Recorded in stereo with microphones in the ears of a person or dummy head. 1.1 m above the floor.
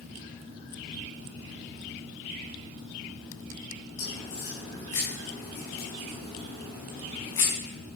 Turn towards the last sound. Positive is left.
turn(degrees=10)  # may be behind; listen again after turning